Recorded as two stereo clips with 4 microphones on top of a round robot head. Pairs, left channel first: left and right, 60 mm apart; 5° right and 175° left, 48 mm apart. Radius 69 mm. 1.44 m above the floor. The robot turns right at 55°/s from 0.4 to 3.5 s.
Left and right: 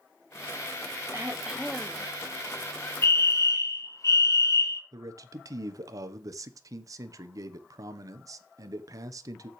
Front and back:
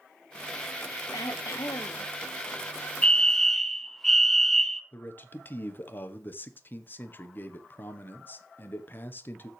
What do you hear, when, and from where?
1.1 s throat clearing: 30° right, 0.7 m; by 2.1 s 20° left, 0.7 m
3.0 s a fire alarm: 55° left, 1.3 m; by 4.8 s 80° left, 1.3 m
4.9 s a man speaking: 60° right, 1.1 m